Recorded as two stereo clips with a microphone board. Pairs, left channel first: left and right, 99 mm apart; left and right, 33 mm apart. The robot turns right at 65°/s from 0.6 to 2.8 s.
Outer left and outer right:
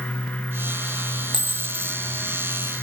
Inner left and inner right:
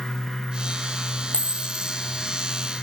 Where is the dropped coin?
50° left, 1.2 m; by 2.0 s 95° left, 1.2 m.